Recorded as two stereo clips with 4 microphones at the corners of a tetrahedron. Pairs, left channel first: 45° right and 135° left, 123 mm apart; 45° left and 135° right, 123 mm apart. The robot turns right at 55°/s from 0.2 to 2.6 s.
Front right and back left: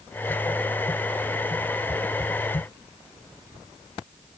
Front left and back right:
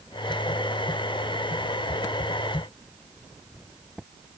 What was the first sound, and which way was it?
Only background noise.